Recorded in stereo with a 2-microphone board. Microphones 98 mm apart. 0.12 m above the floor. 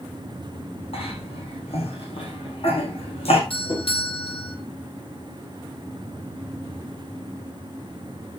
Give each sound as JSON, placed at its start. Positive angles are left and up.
{"t": 0.9, "sound": "a cough", "side_deg": 80, "distance_m": 7.0}
{"t": 3.5, "sound": "a doorbell", "side_deg": 70, "distance_m": 4.5}